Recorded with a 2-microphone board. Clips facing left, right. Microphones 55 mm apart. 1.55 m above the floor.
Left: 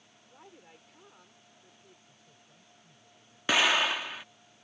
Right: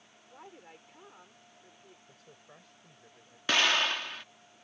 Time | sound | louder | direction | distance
0.3 | a woman speaking | right 3 dB | 20° right (ahead or behind) | ?
2.1 | a man speaking | right 5 dB | 70° right (ahead or behind) | ?
3.5 | an explosion | left 2 dB | 10° left (ahead or behind) | ?